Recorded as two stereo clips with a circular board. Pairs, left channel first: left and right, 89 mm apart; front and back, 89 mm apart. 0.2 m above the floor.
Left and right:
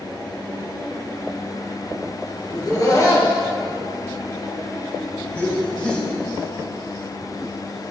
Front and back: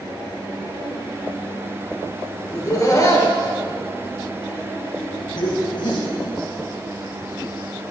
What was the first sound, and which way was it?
Laughter, 50° left.